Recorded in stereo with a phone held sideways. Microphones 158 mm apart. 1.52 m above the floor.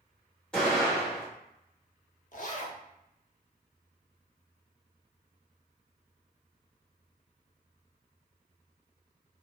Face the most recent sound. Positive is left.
turn(degrees=55)  # may be behind; listen again after turning